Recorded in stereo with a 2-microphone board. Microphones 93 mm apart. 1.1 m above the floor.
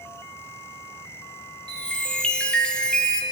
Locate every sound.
1.7 s a chime: 10° left (ahead or behind), 1.9 m